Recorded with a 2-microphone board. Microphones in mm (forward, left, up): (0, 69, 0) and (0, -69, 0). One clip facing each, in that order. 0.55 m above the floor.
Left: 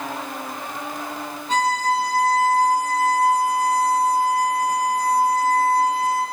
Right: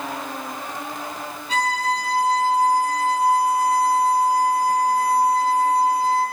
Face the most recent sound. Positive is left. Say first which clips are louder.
# left 2 dB
turn(degrees=40)  # may be behind; listen again after turning